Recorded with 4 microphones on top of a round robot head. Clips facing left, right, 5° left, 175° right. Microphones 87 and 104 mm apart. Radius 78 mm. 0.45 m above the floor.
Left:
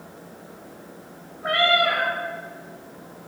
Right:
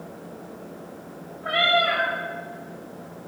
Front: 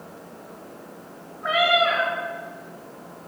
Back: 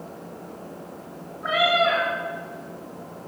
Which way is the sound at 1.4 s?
95° left.